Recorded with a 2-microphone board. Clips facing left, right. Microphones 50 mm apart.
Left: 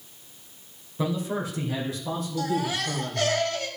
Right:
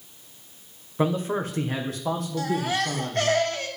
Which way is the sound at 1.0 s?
35° right (ahead or behind).